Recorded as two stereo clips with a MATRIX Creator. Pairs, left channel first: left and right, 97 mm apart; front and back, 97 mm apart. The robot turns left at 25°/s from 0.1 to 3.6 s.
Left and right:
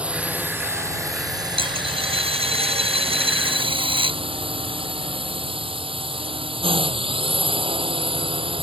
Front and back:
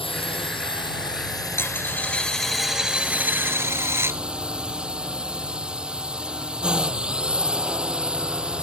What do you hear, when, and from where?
0.0 s a drone: 15° right; by 8.6 s 100° right
1.6 s a dropped coin: 65° right; by 4.2 s 115° right